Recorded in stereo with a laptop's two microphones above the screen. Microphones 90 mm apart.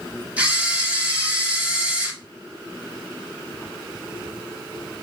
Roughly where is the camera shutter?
Centre.